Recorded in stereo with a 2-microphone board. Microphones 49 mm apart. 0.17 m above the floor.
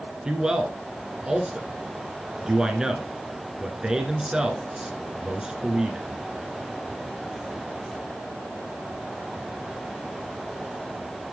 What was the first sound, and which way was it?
A man speaking, 15° right (ahead or behind).